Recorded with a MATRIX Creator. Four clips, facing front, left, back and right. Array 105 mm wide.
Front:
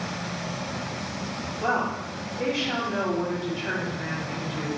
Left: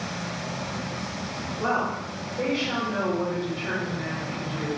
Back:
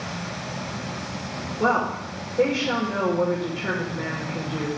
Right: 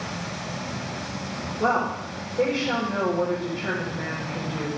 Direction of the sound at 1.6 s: 160° right.